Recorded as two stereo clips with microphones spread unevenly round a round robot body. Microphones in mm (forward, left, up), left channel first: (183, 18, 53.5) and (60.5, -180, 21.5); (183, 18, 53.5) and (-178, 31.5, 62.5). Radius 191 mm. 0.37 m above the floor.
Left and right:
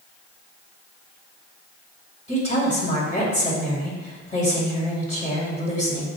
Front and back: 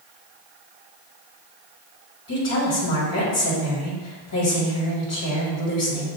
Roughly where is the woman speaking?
Ahead.